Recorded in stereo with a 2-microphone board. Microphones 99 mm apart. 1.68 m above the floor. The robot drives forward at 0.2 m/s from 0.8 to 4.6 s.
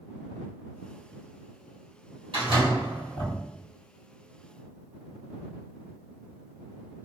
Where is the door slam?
60° right (ahead or behind), 1.5 m; by 3.4 s 55° right (ahead or behind), 1.6 m.